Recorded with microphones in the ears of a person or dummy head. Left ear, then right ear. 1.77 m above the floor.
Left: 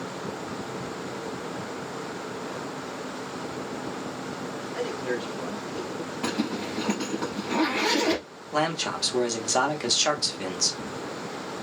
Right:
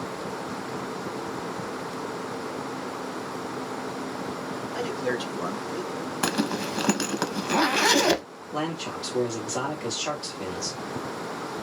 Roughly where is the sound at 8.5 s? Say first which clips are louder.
Left 4 dB; left.